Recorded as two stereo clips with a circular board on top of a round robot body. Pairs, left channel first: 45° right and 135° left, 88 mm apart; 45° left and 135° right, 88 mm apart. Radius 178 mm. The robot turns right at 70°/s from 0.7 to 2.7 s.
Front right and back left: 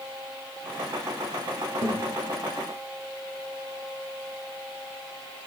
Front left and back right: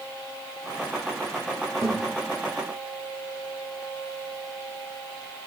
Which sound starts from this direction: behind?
A thud, at 1.8 s.